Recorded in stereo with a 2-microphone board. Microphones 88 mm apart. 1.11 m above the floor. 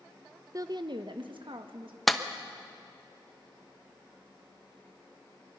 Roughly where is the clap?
Centre.